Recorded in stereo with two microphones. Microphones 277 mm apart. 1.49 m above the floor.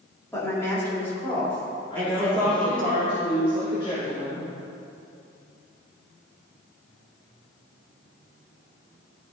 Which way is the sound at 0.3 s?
10° left (ahead or behind).